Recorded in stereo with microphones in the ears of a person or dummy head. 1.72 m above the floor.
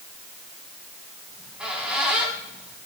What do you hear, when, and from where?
1.3 s a squeak: 5° right (ahead or behind), 3 m